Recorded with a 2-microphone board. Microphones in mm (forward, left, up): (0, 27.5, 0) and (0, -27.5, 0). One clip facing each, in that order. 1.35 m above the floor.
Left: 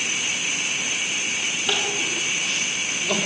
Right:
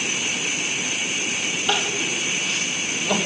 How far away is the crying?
About 3.5 m.